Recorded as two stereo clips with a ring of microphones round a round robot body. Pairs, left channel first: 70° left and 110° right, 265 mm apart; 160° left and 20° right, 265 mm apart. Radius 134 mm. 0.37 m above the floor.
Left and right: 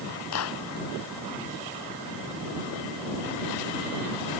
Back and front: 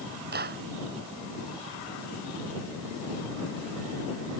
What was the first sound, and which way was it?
A clap, 35° left.